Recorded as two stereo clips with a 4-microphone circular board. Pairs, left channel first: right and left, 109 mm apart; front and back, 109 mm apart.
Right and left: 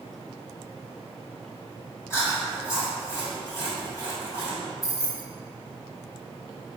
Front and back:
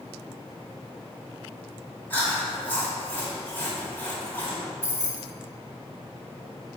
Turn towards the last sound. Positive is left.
turn(degrees=-50)